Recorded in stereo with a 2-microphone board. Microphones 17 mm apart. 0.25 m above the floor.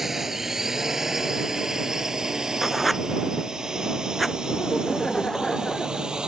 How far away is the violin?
No violin in this recording.